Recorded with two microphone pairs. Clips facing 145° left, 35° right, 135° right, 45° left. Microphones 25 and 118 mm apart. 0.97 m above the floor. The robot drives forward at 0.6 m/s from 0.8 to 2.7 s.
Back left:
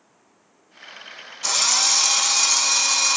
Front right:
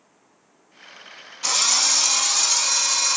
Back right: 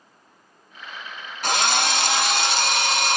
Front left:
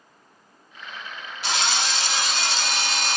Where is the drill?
120° right, 0.7 m; by 3.2 s 155° right, 1.2 m.